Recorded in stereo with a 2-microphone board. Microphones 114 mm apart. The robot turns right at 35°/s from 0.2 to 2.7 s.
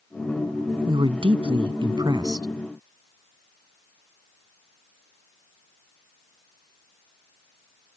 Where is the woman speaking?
100° right; by 2.5 s 45° right.